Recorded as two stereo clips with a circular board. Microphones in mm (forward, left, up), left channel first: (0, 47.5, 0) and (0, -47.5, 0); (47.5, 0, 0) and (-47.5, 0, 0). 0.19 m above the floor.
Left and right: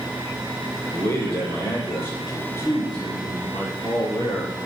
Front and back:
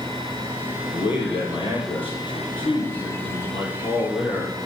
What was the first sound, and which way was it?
A man speaking, 25° left.